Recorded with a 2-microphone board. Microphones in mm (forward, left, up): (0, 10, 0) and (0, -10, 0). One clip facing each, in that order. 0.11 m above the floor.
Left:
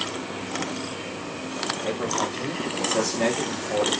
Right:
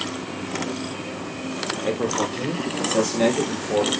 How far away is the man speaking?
About 2 m.